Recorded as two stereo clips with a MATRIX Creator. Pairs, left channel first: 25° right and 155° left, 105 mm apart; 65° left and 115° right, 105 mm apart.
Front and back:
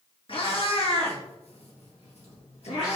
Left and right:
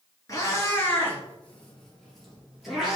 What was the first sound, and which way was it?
A cat meowing, 10° left.